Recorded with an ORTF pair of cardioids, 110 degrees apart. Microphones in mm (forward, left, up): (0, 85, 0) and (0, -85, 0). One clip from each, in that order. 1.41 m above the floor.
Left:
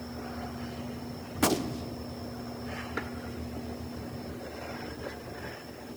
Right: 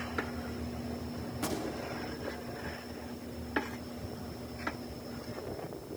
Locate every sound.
1.4 s a gunshot: 45° left, 0.7 m